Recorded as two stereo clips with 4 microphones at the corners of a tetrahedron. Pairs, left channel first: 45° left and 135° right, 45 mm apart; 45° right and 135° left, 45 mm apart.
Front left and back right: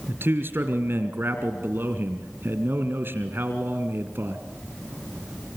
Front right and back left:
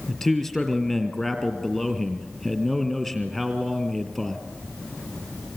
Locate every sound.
0.1 s a man speaking: 120° right, 2 m